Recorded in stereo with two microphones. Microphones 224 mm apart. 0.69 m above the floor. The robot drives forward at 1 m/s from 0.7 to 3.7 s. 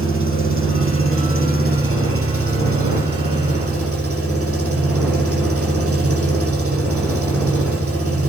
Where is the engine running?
65° right (ahead or behind), 9 m; by 8.3 s 85° right, 8.5 m.